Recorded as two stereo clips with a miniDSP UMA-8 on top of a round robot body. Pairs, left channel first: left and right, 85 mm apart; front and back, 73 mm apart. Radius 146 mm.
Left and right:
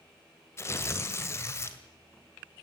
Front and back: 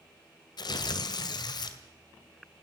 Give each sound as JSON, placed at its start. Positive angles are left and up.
{"t": 0.6, "sound": "tearing paper", "azimuth_deg": 30, "distance_m": 2.0}